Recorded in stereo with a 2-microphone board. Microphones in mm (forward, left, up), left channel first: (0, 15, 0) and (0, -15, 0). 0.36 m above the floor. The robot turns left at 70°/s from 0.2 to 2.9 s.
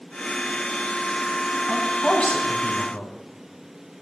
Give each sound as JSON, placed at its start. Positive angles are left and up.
{"t": 1.7, "sound": "a man speaking", "azimuth_deg": 180, "distance_m": 3.0}